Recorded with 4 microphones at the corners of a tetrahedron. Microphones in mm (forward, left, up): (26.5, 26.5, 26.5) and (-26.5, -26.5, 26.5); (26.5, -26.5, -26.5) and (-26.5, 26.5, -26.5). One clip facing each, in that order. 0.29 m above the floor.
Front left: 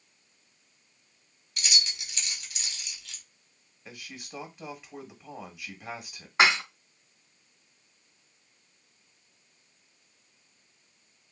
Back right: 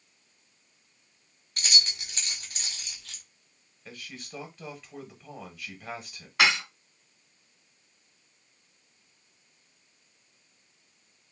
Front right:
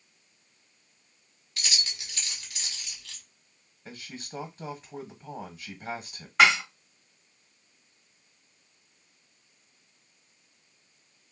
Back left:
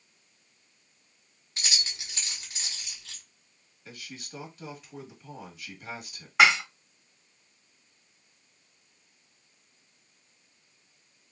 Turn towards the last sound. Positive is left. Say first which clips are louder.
# front left 2 dB, even
turn(degrees=55)